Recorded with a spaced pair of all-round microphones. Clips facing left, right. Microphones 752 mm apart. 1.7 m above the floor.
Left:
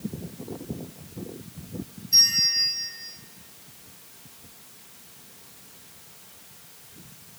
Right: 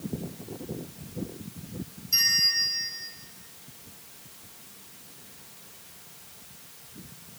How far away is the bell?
About 2.5 m.